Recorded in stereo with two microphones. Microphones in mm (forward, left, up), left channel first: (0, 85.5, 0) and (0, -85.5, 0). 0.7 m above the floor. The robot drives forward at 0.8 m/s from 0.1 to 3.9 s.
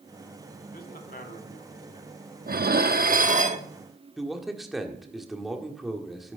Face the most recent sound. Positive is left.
turn(degrees=0)  # may be behind; listen again after turning